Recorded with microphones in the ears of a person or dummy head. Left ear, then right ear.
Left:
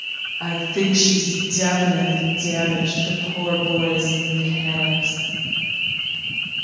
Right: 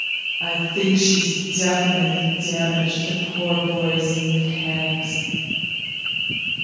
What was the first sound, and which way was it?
A woman speaking, 65° left (ahead or behind).